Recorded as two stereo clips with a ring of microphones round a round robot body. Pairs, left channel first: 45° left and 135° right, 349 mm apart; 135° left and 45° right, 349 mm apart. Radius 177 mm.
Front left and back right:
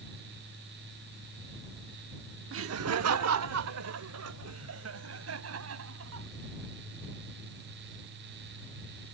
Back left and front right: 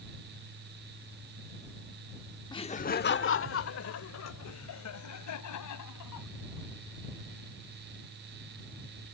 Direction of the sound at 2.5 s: 155° right.